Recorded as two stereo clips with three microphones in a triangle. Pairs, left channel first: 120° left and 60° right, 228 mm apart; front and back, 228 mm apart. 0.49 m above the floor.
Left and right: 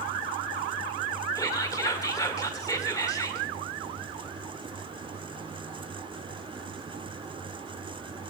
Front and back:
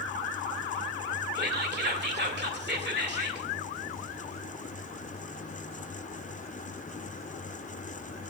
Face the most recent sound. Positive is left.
turn(degrees=-170)